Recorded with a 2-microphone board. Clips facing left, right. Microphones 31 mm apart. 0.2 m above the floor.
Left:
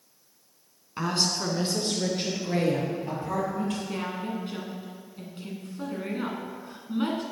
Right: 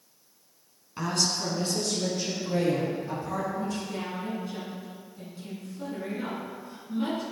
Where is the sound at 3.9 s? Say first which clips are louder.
Left 1 dB; 45° left (ahead or behind), 2.5 m.